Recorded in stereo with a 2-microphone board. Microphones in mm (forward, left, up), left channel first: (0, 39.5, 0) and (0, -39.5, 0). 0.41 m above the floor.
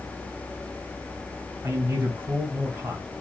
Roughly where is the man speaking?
Right.